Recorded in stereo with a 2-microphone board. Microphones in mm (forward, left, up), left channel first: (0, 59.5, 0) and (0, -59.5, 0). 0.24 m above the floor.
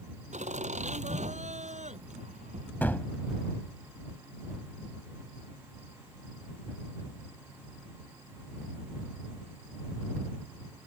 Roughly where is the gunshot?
Centre.